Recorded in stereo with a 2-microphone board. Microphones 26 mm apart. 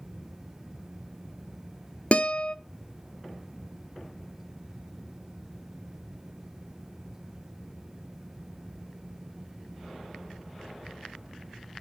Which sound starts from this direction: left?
A guitar, at 2.1 s.